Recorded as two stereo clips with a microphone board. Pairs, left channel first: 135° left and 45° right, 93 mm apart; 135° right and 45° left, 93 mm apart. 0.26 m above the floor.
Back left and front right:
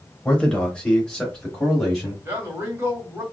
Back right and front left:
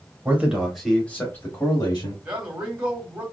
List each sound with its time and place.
0.2 s a man speaking: 70° left, 1.0 m; by 2.1 s 140° right, 1.2 m
2.2 s a man speaking: 20° right, 1.4 m